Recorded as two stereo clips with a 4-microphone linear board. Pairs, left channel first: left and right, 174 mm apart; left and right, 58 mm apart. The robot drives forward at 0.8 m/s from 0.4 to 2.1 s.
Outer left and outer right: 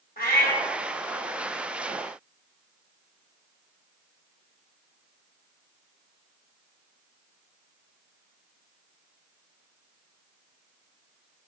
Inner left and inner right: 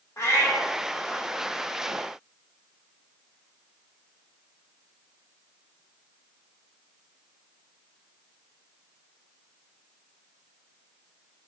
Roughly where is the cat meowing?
Left.